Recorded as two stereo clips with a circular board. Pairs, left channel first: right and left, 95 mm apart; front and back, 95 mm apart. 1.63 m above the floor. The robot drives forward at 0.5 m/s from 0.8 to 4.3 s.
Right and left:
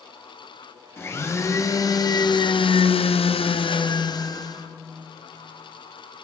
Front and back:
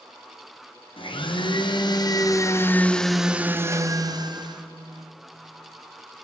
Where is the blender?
25° right, 1.2 m; by 4.7 s 135° right, 0.8 m.